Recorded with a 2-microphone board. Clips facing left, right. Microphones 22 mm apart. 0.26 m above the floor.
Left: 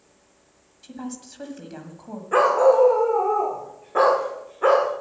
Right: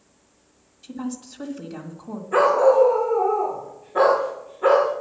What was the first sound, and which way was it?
A woman speaking, 5° left (ahead or behind).